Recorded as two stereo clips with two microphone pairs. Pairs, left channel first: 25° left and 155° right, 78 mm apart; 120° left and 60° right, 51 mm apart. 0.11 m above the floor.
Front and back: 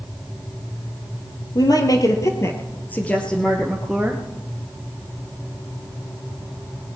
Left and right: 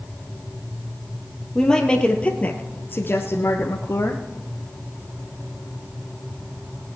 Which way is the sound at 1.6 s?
45° left.